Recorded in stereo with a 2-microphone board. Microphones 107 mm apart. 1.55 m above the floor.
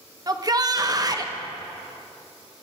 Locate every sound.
0.3 s a shout: 35° right (ahead or behind), 1.2 m